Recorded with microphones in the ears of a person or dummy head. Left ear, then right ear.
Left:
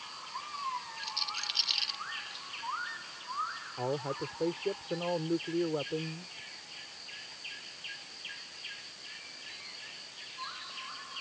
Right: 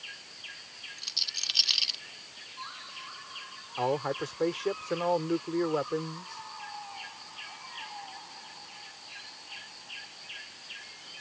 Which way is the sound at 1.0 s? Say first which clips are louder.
Right 7 dB; 20° right (ahead or behind).